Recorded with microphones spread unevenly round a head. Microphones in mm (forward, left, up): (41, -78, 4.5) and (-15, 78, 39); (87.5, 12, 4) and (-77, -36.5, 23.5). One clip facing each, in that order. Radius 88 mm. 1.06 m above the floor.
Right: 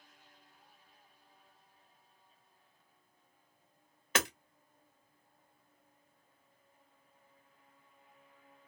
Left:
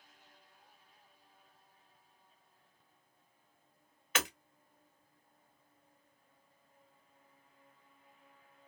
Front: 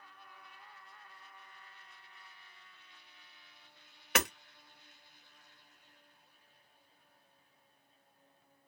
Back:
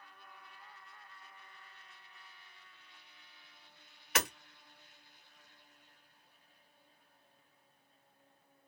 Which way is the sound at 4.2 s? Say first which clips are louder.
Right 3 dB, front 3 dB; 15° right.